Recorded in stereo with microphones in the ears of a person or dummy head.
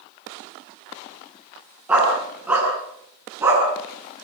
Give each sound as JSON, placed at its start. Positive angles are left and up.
{"t": 1.9, "sound": "a dog barking", "side_deg": -5, "distance_m": 8.5}